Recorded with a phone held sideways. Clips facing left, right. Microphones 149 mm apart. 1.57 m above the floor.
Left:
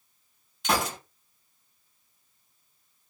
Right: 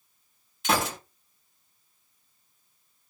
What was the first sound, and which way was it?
A gunshot, centre (ahead or behind).